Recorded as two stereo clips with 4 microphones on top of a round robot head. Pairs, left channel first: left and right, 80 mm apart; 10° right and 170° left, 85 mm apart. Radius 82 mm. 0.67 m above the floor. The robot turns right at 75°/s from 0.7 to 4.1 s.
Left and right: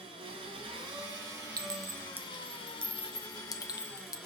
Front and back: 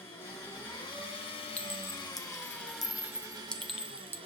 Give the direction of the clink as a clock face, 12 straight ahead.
3 o'clock.